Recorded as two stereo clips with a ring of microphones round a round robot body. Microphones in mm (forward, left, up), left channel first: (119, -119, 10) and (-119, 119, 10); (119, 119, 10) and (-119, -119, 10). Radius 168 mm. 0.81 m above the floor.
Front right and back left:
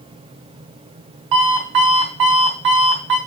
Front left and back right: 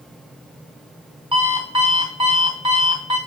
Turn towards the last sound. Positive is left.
turn(degrees=150)